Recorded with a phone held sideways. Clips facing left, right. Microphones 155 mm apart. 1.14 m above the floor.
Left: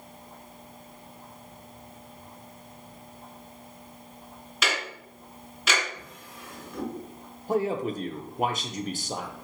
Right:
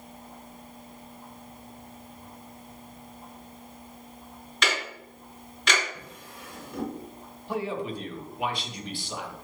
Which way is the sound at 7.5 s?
45° left (ahead or behind).